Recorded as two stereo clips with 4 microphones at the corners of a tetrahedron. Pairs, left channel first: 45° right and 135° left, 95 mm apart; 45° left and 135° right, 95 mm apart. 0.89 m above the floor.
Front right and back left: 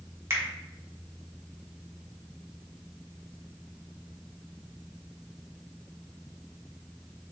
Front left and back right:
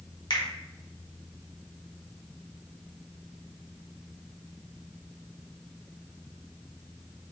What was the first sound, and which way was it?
A finger snap, 80° left.